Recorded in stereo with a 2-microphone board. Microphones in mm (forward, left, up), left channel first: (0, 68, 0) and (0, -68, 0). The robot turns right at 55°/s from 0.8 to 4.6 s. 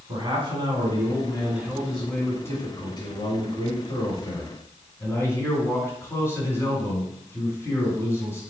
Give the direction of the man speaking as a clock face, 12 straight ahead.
2 o'clock.